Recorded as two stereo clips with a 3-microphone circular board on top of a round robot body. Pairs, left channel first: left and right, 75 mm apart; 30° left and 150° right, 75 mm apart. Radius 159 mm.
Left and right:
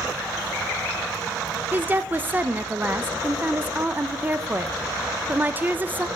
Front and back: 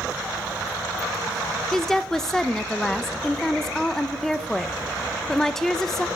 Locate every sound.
1.7 s a woman speaking: 50° right, 0.8 m